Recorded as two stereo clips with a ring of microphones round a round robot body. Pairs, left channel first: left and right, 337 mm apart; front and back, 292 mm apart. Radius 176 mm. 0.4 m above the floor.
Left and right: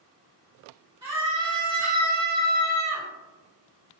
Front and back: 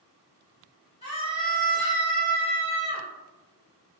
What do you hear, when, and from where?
1.0 s a scream: 40° right, 1.4 m